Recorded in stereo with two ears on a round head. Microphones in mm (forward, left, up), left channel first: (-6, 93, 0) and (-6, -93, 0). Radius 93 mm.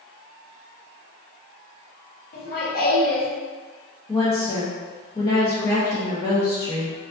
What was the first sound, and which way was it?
Laughter, 45° left (ahead or behind).